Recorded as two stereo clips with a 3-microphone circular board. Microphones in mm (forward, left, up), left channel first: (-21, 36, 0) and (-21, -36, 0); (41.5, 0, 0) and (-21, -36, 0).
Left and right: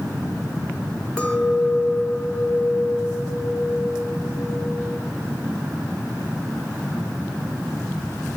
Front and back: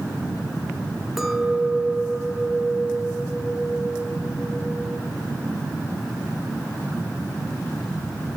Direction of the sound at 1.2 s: 130° left.